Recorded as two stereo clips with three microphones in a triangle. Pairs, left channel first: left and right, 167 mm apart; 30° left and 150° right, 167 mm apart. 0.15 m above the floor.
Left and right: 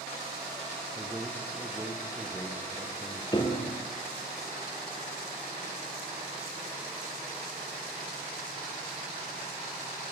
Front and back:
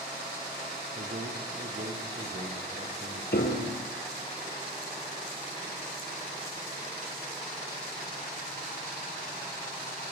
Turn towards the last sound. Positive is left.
turn(degrees=30)